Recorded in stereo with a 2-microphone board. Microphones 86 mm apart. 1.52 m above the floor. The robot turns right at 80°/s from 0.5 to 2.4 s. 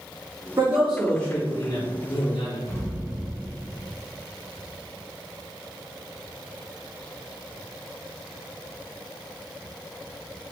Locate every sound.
0.6 s a man speaking: 40° right, 1.9 m; by 2.6 s 110° left, 1.9 m
2.7 s an explosion: 25° left (ahead or behind), 1.3 m